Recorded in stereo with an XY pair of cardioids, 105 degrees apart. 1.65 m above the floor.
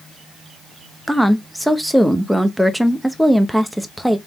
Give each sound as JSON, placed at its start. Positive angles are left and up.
{"t": 1.1, "sound": "a woman speaking", "azimuth_deg": -5, "distance_m": 0.8}